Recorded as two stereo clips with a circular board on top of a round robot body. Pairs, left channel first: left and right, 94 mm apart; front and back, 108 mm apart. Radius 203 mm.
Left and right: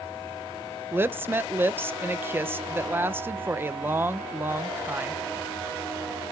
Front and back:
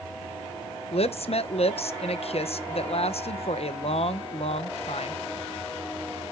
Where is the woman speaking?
25° right, 0.7 m.